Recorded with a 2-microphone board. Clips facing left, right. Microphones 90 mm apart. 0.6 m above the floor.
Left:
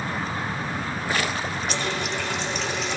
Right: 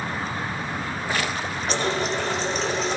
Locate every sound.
1.7 s a running tap: 35° right (ahead or behind), 0.6 m